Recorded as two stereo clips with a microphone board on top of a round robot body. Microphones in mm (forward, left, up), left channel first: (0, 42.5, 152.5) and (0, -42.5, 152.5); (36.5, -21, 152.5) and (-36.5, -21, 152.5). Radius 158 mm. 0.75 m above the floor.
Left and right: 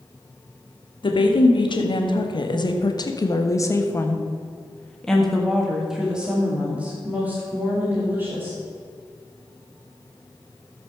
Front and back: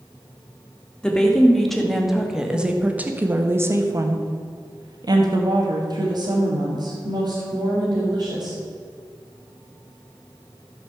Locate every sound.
1.0 s a woman speaking: 80° left, 2.5 m; by 8.6 s 155° right, 3.5 m